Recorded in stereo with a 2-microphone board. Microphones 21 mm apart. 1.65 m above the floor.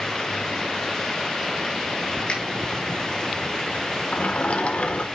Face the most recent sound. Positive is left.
turn(degrees=60)  # may be behind; listen again after turning